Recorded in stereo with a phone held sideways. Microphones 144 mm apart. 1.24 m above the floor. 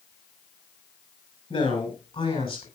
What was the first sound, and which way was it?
A man speaking, 40° left (ahead or behind).